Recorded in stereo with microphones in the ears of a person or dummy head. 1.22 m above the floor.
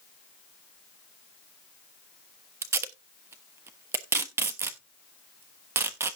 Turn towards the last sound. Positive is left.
turn(degrees=-15)  # may be behind; listen again after turning